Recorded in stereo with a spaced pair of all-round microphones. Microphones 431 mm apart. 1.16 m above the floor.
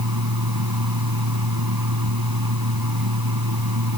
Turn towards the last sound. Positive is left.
turn(degrees=-55)  # may be behind; listen again after turning